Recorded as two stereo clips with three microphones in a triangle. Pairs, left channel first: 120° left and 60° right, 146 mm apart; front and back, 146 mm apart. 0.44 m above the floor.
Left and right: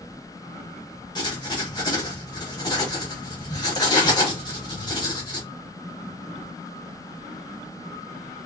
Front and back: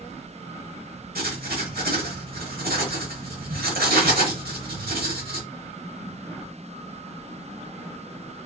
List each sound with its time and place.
1.1 s writing: straight behind, 0.8 m